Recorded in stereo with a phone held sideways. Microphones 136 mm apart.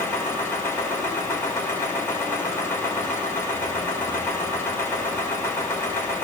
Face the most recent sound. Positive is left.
turn(degrees=15)  # may be behind; listen again after turning